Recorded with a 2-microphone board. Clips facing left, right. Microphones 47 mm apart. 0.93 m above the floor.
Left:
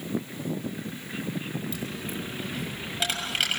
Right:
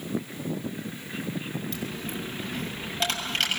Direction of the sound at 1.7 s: 10° left (ahead or behind).